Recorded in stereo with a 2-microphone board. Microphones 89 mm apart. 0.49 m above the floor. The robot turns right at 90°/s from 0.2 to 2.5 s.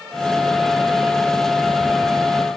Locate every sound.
Only background noise.